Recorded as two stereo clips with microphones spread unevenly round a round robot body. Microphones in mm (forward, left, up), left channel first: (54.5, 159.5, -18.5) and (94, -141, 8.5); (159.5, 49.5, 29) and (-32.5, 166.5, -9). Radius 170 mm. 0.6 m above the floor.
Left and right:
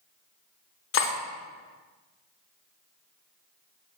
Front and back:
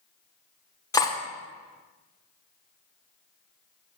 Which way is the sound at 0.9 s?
45° left.